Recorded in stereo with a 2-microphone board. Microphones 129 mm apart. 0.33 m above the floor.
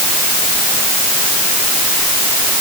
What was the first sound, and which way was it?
Only background noise.